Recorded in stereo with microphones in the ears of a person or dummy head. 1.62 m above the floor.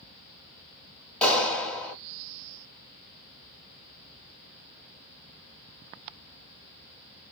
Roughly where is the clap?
Centre.